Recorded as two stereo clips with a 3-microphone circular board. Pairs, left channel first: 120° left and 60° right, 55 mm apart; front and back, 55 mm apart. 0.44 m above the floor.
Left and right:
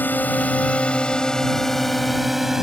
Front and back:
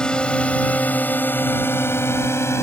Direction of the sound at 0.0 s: 70° left.